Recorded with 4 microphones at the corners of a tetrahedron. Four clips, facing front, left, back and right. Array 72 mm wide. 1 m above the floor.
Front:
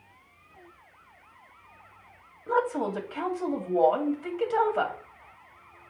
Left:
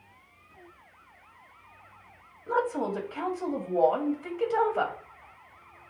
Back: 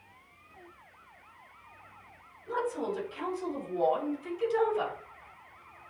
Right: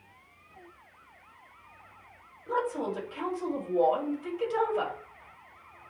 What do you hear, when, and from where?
2.5 s a woman speaking: 20° left, 2.5 m